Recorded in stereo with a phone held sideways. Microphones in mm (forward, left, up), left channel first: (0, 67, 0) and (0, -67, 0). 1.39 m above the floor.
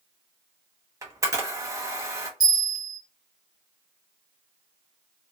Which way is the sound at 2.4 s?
30° right (ahead or behind).